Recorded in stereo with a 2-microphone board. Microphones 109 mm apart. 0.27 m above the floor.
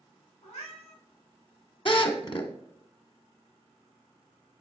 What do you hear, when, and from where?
0.4 s a cat meowing: 75° left (ahead or behind), 3.5 m
1.9 s a drill: 55° left (ahead or behind), 1.1 m